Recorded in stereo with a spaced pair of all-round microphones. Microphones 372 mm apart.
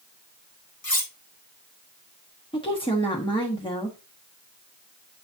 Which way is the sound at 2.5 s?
15° left (ahead or behind).